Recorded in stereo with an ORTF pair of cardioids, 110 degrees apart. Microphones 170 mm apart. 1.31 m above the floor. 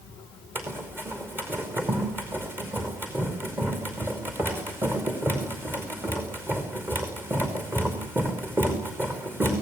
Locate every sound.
0.6 s running footsteps: 15° right, 5 m